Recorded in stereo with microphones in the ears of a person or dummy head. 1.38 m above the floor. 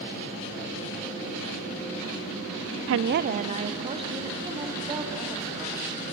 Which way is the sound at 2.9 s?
75° right (ahead or behind).